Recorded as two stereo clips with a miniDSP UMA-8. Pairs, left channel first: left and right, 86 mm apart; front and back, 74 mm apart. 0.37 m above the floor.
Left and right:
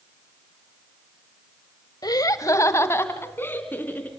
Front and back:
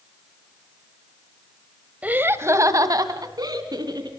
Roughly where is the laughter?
Behind left.